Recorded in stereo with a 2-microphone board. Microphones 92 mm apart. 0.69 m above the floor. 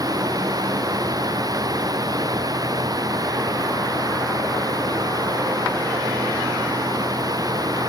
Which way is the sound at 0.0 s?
40° right (ahead or behind).